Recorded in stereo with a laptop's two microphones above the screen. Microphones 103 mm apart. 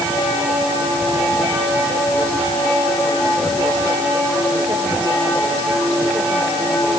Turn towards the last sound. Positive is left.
No sound to turn to.